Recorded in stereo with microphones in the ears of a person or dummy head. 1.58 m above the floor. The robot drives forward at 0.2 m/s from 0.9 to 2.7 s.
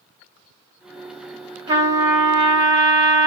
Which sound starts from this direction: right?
A trumpet, at 1.7 s.